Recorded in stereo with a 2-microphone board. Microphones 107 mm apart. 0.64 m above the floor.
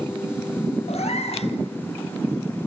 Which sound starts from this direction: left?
A cat meowing, at 0.9 s.